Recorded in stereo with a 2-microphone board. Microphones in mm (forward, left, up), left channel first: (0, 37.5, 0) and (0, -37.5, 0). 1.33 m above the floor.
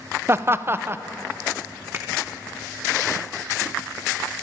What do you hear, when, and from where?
0.3 s laughter: 30° right (ahead or behind), 0.8 m
1.9 s a finger snap: 30° right (ahead or behind), 2.5 m